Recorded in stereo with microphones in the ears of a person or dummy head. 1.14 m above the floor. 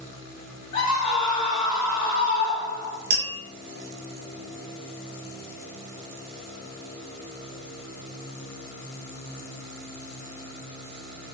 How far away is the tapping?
About 1.1 m.